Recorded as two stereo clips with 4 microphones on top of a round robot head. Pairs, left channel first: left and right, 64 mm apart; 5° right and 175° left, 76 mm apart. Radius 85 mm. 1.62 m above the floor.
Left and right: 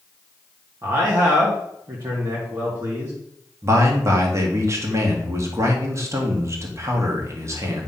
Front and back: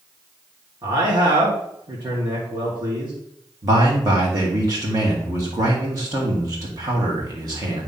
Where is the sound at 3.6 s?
135° right, 1.7 m.